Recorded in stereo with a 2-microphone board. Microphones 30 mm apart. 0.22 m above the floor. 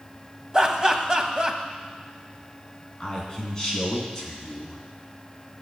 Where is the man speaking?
20° left (ahead or behind), 2.5 m.